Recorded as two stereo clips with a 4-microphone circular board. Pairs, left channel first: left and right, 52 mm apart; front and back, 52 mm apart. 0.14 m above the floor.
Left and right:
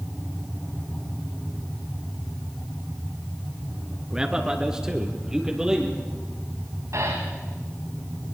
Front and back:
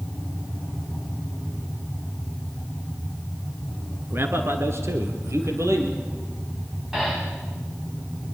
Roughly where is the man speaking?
Behind.